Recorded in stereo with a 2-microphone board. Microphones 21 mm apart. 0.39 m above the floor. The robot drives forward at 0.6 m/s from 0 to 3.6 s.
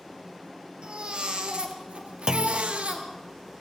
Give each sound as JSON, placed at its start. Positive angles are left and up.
{"t": 0.8, "sound": "a baby crying", "side_deg": -55, "distance_m": 2.5}
{"t": 2.3, "sound": "a clunk", "side_deg": -35, "distance_m": 0.7}